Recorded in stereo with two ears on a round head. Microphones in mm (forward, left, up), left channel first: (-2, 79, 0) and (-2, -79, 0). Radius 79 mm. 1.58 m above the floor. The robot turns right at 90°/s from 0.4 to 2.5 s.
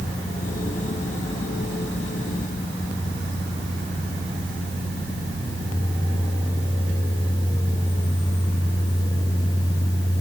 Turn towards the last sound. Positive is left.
No sound to turn to.